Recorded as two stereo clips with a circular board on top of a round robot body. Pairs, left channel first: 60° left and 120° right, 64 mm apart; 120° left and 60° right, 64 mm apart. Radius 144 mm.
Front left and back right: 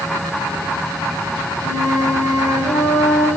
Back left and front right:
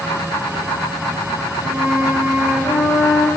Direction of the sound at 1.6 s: 145° right.